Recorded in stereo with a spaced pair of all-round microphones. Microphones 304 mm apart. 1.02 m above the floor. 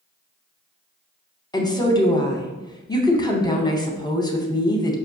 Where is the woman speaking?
15° left (ahead or behind), 0.6 m.